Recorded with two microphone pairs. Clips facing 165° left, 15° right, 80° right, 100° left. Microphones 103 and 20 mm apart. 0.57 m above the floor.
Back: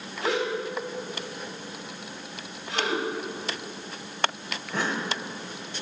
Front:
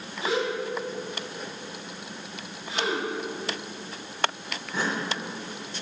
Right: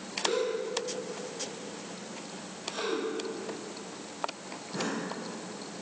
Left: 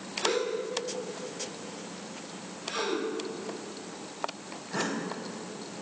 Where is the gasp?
145° left, 3 m.